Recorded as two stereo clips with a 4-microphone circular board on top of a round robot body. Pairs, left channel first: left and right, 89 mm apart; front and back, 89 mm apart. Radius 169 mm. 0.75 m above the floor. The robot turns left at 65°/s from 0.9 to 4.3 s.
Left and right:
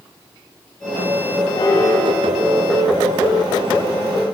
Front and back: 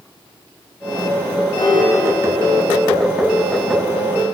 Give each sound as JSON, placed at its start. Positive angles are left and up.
{"t": 1.6, "sound": "a piano", "azimuth_deg": 50, "distance_m": 1.8}